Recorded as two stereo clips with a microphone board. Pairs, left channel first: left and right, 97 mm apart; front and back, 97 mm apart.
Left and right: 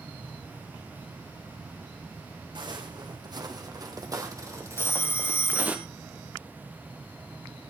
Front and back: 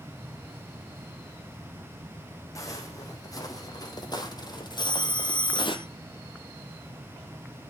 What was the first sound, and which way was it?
Footsteps, 55° right.